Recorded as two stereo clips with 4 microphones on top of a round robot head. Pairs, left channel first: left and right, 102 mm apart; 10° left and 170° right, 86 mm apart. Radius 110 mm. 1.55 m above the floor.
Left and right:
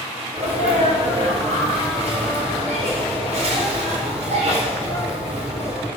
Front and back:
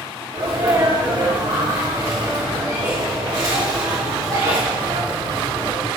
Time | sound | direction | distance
0.3 | a sneeze | 120° right | 3 m